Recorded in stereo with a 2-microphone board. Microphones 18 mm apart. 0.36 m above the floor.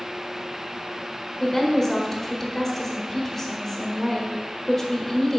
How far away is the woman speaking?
About 1.4 m.